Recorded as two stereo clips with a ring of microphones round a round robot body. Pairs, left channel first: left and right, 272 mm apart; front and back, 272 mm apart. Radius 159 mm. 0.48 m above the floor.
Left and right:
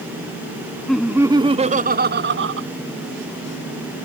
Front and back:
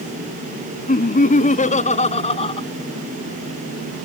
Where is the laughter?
5° left; by 2.7 s 65° right.